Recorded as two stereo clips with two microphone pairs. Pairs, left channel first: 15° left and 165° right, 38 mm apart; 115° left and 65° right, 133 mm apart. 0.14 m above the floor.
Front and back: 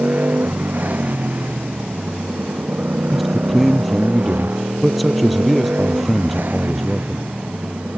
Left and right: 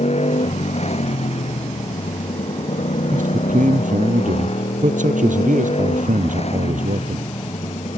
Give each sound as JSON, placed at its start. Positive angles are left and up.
{"t": 0.0, "sound": "a motorcycle", "azimuth_deg": 150}
{"t": 3.1, "sound": "a man speaking", "azimuth_deg": -75}